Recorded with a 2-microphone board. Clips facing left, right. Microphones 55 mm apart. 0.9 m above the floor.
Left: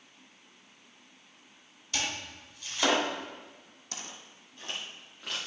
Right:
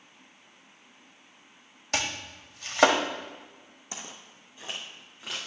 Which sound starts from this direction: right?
Chopping, at 1.9 s.